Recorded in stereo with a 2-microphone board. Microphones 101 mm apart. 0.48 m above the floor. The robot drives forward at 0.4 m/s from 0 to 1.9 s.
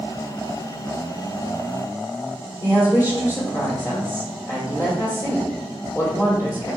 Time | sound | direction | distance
2.6 | a woman speaking | 30° left (ahead or behind) | 1.2 m